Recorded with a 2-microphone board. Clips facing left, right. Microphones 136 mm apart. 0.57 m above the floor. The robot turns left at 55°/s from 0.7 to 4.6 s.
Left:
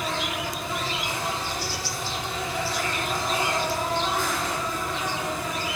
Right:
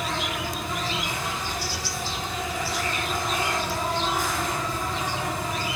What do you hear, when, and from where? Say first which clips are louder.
0.0 s an insect: even; straight behind, 3.5 m; by 5.8 s 35° right, 3.5 m